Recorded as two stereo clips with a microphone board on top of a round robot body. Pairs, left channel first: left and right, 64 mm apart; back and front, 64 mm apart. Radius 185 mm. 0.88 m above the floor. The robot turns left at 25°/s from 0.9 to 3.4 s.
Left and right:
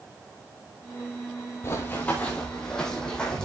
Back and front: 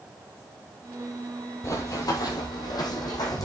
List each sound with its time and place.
1.6 s running footsteps: 140° left, 1.3 m; by 3.5 s 165° left, 2.5 m